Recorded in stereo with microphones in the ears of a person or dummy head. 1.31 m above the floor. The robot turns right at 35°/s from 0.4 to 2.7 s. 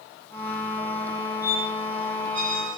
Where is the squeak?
5° right (ahead or behind), 2 m; by 2.8 s 40° right (ahead or behind), 2 m.